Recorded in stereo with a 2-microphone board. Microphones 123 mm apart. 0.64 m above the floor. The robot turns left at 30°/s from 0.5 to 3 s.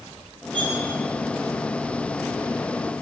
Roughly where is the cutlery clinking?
Right.